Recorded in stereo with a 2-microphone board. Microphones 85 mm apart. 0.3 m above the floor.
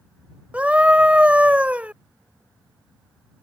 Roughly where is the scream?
Centre.